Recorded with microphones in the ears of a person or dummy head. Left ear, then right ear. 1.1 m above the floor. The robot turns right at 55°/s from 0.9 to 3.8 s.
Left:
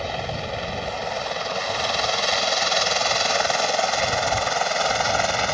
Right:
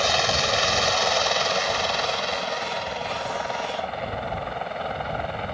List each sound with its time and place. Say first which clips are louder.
0.0 s a helicopter: right 7 dB; 55° right (ahead or behind); by 5.5 s 75° left (ahead or behind)